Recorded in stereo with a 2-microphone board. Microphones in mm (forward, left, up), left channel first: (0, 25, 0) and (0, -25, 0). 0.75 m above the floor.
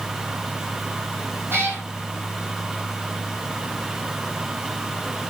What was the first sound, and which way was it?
A cat meowing, 55° right (ahead or behind).